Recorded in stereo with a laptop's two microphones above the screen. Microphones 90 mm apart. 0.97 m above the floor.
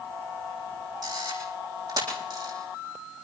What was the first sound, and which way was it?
A camera shutter, 45° right (ahead or behind).